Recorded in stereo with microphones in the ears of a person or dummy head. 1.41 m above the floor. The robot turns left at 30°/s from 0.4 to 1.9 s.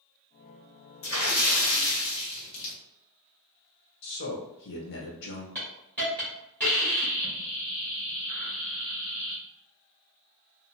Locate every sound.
1.0 s a splash: 70° left (ahead or behind), 1.0 m; by 2.7 s 80° left, 1.0 m
4.0 s a man speaking: 65° left (ahead or behind), 1.0 m
5.5 s a hiss: 5° left (ahead or behind), 1.2 m